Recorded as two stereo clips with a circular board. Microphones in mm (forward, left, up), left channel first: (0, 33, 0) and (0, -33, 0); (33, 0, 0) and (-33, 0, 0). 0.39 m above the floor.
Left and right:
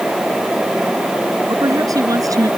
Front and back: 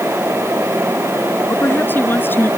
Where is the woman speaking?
60° right.